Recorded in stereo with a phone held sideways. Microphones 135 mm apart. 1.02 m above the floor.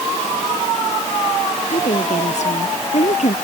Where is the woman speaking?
60° left (ahead or behind).